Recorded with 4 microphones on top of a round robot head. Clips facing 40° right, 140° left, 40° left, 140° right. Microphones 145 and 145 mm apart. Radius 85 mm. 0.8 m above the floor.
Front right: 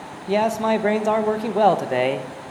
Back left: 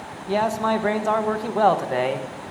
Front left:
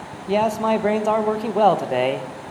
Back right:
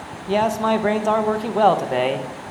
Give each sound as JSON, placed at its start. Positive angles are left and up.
{"t": 0.3, "sound": "a man speaking", "azimuth_deg": -25, "distance_m": 0.5}